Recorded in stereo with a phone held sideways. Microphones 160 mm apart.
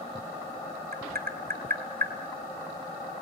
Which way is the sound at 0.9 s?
70° right (ahead or behind).